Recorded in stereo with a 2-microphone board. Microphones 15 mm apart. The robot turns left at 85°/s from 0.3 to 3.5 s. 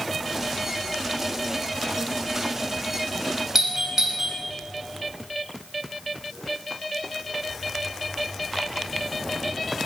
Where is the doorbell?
35° right (ahead or behind), 1.9 m.